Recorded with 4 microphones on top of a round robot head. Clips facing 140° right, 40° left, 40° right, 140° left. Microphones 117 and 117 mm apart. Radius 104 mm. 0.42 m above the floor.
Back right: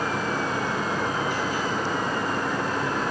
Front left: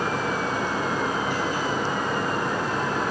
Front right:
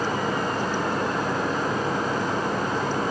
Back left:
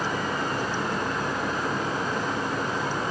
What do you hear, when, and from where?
Only background noise.